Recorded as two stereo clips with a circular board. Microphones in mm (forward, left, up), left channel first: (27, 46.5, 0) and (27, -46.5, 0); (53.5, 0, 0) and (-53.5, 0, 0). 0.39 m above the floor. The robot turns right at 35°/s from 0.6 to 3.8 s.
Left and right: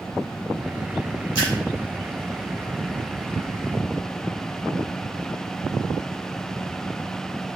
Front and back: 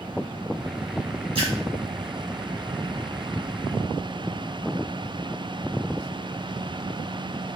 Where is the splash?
140° right, 2.0 m; by 1.5 s 130° right, 2.0 m.